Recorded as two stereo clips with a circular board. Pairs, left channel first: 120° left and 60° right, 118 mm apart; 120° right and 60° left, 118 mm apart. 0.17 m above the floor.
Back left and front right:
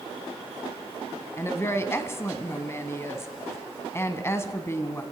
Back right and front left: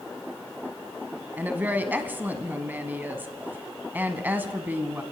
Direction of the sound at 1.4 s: 105° left.